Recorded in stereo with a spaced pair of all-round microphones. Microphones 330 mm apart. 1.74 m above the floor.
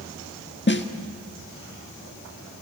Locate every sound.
0.7 s a snare drum: 35° left (ahead or behind), 1.5 m